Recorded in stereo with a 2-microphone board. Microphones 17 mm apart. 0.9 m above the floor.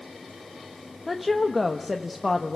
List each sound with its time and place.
1.1 s a woman speaking: centre (ahead or behind), 1.1 m